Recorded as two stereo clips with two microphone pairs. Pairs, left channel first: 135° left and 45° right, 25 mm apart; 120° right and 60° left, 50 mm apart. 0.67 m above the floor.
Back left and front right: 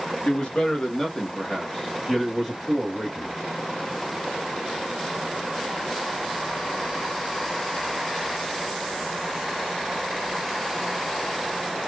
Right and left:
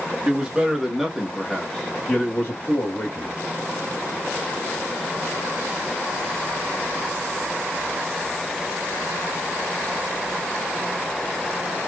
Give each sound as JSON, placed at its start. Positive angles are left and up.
{"t": 0.2, "sound": "a man speaking", "azimuth_deg": 125, "distance_m": 1.3}